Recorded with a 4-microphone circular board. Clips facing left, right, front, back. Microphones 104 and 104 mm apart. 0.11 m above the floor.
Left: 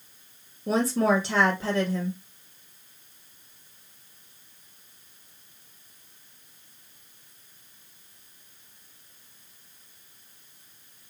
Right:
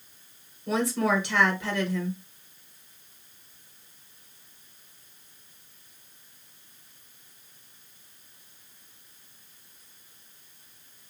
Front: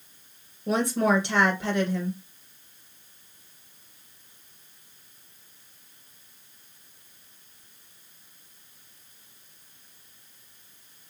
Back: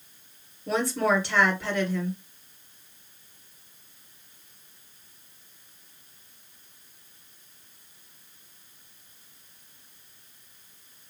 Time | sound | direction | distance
0.7 | a woman speaking | 60° left | 2 m